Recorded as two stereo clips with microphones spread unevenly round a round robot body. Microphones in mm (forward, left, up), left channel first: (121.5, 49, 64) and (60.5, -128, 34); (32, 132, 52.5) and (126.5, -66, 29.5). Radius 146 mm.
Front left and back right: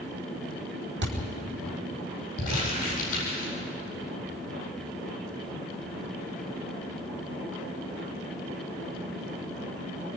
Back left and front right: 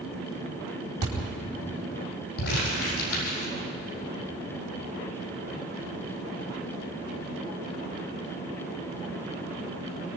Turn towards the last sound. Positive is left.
turn(degrees=105)